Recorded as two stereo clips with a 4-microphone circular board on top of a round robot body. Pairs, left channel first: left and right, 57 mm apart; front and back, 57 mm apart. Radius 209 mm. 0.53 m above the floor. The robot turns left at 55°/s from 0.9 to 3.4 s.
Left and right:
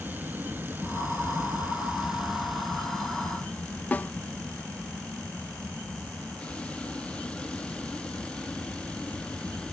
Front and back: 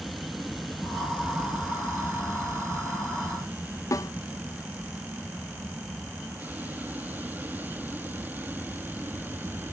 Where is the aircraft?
95° right; by 9.7 s 150° left.